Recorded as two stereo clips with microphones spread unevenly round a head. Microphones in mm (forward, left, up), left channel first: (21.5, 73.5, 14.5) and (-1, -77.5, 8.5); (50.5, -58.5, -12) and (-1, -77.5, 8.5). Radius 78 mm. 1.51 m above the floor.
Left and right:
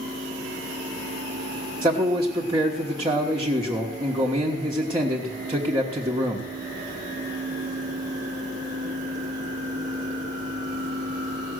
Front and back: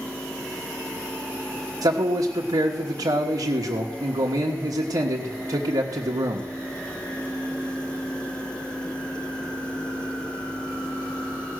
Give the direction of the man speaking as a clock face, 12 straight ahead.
6 o'clock.